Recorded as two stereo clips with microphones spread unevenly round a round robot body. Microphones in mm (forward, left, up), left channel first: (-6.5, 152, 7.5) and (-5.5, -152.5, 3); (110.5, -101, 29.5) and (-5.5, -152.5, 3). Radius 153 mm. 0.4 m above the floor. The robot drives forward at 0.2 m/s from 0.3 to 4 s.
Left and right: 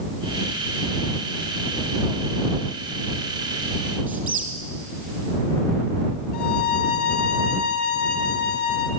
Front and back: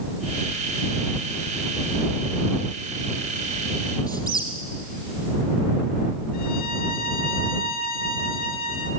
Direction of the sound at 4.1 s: 175° right.